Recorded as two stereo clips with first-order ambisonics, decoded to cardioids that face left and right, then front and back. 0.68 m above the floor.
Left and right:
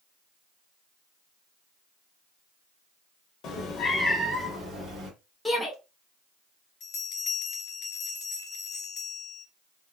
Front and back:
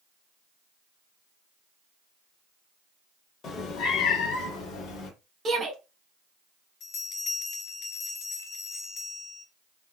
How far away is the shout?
About 0.5 m.